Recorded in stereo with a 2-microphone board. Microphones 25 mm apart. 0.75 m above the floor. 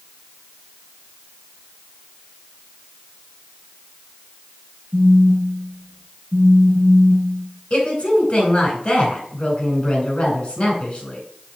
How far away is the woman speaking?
About 3.5 m.